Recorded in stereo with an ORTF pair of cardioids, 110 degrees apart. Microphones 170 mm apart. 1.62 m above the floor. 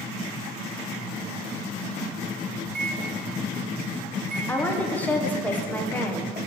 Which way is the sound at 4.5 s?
10° left.